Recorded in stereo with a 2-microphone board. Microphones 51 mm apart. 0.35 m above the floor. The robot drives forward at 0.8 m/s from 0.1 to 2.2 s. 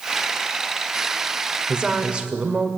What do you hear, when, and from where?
1.7 s a woman speaking: 20° right (ahead or behind), 1.5 m